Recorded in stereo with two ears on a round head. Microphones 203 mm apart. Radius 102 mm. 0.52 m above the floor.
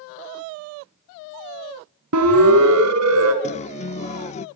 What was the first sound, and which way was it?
A siren, 75° right (ahead or behind).